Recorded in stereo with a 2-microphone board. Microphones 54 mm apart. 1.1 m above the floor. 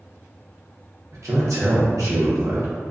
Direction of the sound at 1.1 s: 70° right (ahead or behind).